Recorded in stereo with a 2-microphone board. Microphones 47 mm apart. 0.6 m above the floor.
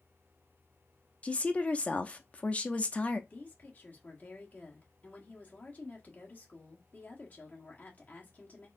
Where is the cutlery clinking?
No cutlery clinking in this recording.